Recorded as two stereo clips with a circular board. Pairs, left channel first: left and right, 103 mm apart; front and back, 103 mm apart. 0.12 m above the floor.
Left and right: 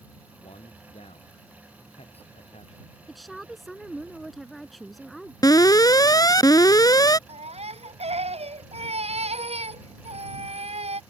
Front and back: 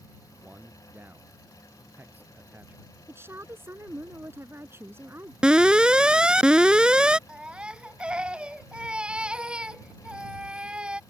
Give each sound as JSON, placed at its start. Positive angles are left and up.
{"t": 0.3, "sound": "a man speaking", "azimuth_deg": 105}
{"t": 3.1, "sound": "a woman speaking", "azimuth_deg": 180}
{"t": 5.4, "sound": "an alarm", "azimuth_deg": 105}
{"t": 7.3, "sound": "a baby crying", "azimuth_deg": -100}